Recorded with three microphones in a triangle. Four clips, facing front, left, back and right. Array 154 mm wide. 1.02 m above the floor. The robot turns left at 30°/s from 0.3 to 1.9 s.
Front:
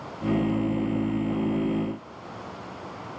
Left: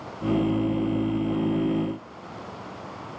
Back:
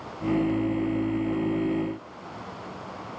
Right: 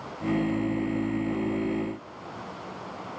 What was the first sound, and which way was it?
Only background noise.